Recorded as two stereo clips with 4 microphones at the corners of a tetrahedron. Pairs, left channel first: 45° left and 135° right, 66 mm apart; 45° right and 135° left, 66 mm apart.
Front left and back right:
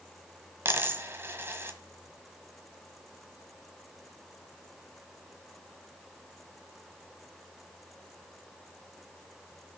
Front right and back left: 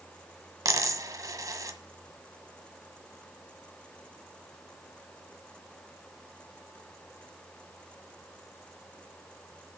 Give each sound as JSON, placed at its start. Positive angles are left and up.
{"t": 0.7, "sound": "a dropped coin", "azimuth_deg": 170, "distance_m": 1.5}